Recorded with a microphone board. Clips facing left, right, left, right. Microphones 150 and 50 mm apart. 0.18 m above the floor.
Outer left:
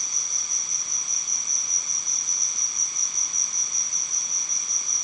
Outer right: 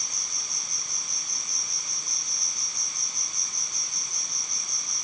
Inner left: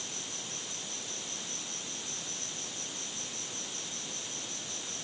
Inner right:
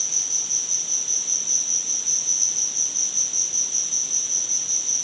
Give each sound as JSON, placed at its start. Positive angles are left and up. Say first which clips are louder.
{"t": 0.0, "sound": "an insect", "louder": "outer right 1 dB, inner right 2 dB", "side_deg": -70}